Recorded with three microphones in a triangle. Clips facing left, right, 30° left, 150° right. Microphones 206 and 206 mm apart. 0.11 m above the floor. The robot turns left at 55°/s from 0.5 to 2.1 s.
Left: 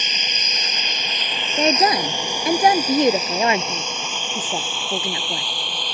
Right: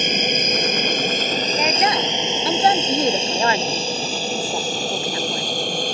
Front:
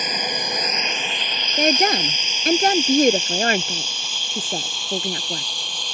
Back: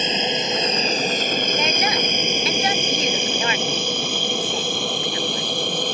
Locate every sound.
0.0 s an aircraft: 90° right; by 6.0 s 130° right
1.6 s a woman speaking: 55° left; by 5.5 s 25° left